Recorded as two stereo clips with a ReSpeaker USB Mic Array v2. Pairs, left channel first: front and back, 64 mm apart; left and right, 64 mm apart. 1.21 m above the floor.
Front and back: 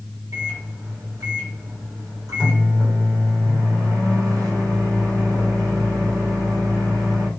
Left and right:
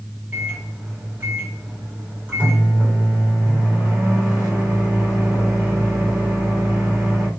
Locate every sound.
0.3 s a microwave: 155° right, 4 m